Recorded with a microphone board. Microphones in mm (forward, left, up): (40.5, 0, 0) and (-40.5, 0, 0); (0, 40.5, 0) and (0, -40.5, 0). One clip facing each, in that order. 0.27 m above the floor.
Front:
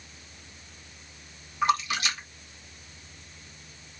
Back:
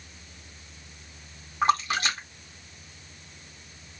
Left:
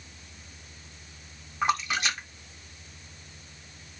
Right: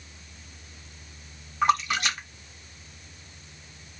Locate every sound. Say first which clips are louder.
1.6 s a splash: back 2 dB, right 4 dB; 170° left, 1.5 m